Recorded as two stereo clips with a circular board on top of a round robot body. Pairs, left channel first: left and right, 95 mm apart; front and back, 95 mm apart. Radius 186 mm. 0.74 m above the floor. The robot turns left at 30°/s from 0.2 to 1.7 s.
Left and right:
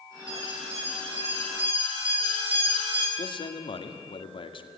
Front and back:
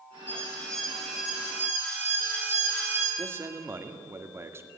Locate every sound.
0.3 s an alarm: 65° right, 9.5 m; by 3.0 s 110° right, 9.5 m
3.1 s a man speaking: 115° left, 2 m